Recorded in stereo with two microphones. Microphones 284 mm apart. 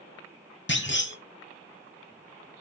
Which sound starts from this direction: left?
A clunk, at 0.7 s.